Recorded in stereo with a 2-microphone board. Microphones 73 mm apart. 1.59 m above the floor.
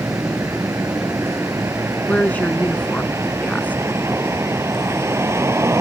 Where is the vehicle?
35° right (ahead or behind); by 5.8 s 40° right (ahead or behind).